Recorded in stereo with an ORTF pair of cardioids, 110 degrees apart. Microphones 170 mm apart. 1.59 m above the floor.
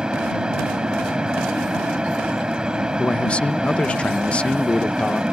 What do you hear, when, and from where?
0.0 s a fan: 5° right
3.0 s a man speaking: 5° left